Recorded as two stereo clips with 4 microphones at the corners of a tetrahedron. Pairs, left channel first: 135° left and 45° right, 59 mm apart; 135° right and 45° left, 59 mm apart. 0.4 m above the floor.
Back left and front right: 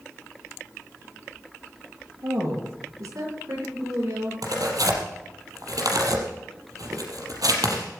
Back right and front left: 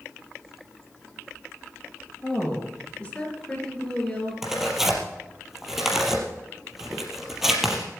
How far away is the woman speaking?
About 6.5 m.